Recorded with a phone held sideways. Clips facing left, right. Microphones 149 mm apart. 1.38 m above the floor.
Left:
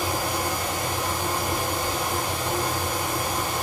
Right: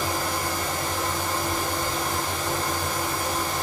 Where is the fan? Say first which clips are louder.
Left 1 dB; 15° left (ahead or behind), 1.3 m.